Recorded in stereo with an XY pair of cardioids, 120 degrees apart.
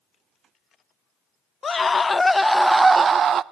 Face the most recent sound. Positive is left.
turn(degrees=-50)